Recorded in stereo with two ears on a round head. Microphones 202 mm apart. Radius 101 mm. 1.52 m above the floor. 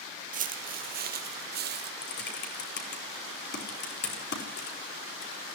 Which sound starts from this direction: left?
Typing on a keyboard, at 2.0 s.